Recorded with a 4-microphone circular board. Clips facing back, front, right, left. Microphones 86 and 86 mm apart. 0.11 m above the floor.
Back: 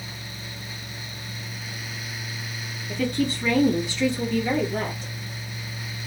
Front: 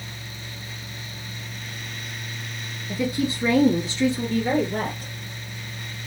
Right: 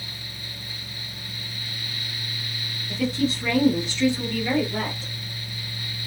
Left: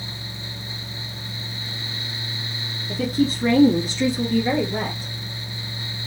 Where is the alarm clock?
I don't hear an alarm clock.